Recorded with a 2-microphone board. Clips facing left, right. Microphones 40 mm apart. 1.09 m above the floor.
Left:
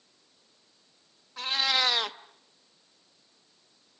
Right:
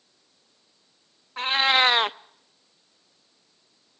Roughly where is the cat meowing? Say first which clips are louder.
Right 7 dB; right.